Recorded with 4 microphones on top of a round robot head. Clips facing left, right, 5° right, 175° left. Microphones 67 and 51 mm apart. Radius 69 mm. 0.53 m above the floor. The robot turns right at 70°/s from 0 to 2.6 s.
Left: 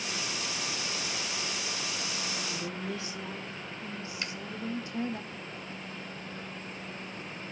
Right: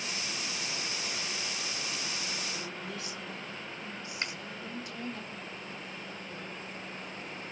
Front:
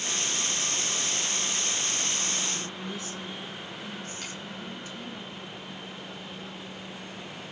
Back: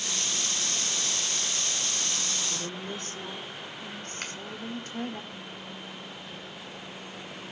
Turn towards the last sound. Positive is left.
turn(degrees=-145)